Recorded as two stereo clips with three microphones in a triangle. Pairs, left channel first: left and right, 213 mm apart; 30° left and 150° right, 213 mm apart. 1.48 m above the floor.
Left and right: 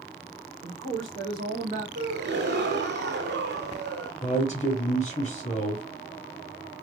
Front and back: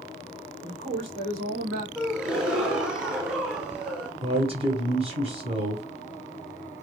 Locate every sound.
0.6 s a man speaking: 100° right, 1.3 m; by 1.9 s 170° right, 1.0 m
1.9 s a gasp: 65° right, 0.8 m
4.2 s a man speaking: 150° left, 0.7 m